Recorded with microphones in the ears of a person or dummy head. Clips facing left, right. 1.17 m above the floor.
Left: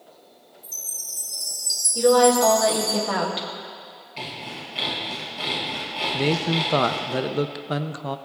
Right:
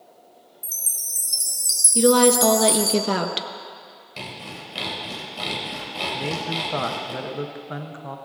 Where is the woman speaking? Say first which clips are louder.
Even; 40° right (ahead or behind), 1.1 m.